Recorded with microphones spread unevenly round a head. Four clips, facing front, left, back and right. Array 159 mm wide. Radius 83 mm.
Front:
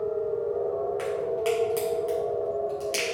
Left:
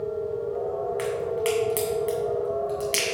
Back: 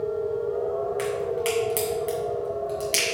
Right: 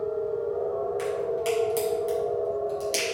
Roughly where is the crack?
Behind left.